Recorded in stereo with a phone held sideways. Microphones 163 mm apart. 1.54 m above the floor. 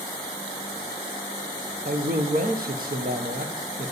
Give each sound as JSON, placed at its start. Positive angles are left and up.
{"t": 1.9, "sound": "a man speaking", "side_deg": -65, "distance_m": 1.3}